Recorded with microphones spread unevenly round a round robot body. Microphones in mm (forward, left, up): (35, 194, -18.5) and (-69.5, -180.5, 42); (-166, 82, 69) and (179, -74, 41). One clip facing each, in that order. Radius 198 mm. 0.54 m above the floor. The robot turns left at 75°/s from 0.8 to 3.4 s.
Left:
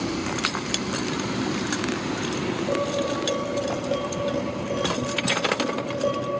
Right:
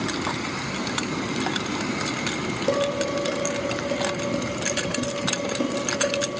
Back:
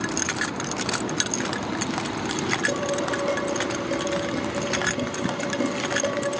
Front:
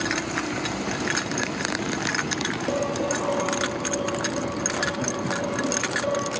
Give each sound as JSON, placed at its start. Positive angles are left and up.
{"t": 2.7, "sound": "dishes clattering", "azimuth_deg": -110, "distance_m": 7.5}